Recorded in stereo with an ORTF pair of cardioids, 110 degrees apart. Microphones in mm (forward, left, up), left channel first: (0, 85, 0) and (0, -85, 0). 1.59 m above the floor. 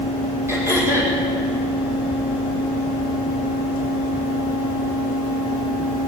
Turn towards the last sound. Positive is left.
turn(degrees=-15)